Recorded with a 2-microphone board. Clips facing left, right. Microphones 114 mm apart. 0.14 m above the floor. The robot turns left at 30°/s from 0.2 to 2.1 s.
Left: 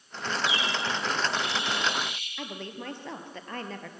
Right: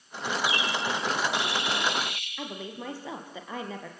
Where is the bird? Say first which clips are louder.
Right 1 dB; 65° right, 8 m; by 2.3 s 115° right, 8 m.